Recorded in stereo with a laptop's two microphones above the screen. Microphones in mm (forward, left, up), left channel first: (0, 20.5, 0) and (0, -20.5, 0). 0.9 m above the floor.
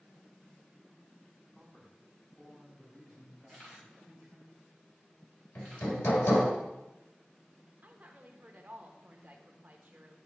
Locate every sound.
1.5 s a man speaking: 10° left (ahead or behind), 2.5 m
3.5 s a camera shutter: 30° left (ahead or behind), 1.7 m
5.5 s hammering: 70° left (ahead or behind), 1.9 m
7.8 s a woman speaking: 40° right (ahead or behind), 0.9 m